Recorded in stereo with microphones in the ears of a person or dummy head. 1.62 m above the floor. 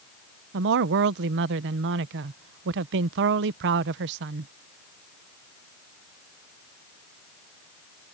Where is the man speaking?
60° right (ahead or behind).